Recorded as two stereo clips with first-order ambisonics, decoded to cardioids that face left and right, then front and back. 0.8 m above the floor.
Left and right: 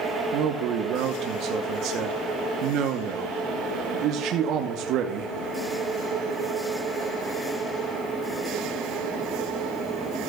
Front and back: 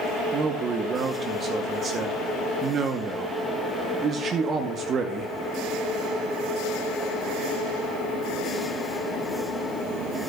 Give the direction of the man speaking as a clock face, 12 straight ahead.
4 o'clock.